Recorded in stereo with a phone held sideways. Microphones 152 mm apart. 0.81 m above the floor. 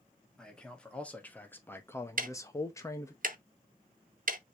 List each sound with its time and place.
0.4 s a man speaking: 5° left (ahead or behind), 1.7 m; by 3.2 s 20° left (ahead or behind), 1.0 m
2.2 s ticking: 65° right (ahead or behind), 0.6 m